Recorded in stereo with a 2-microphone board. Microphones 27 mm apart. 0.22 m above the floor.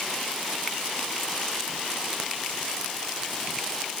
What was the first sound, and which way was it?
Only background noise.